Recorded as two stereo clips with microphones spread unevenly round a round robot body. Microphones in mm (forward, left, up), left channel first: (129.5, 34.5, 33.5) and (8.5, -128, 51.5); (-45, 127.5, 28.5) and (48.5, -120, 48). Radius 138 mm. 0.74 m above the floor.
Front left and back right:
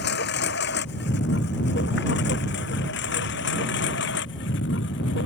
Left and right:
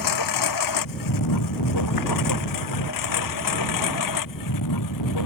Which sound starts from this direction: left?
A lawn mower, at 0.0 s.